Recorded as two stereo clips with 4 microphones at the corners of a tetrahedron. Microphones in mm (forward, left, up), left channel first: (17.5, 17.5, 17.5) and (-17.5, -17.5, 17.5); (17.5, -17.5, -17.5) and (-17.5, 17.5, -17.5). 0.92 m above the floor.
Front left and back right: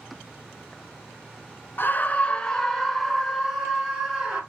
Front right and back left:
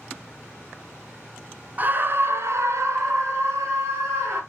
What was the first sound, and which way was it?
A scream, 85° left.